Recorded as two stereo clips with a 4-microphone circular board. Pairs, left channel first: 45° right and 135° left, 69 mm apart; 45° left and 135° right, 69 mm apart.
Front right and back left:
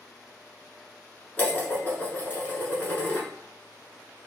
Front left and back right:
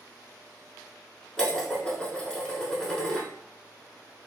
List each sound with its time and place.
1.4 s dishes clattering: 20° right, 0.9 m